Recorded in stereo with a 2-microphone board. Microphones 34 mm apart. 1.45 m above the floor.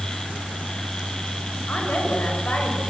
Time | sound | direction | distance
1.7 | a woman speaking | 55° left (ahead or behind) | 6 m